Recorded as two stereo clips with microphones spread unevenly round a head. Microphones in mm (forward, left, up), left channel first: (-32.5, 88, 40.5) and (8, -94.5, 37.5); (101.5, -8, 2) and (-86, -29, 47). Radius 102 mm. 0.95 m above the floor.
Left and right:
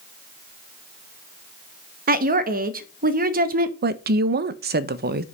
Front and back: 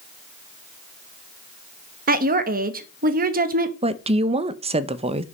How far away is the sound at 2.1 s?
About 1.0 m.